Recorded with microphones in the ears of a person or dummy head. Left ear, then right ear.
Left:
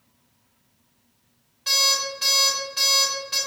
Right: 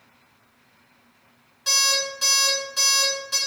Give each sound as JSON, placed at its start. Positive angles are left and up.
{"t": 1.7, "sound": "an alarm clock", "side_deg": -15, "distance_m": 1.6}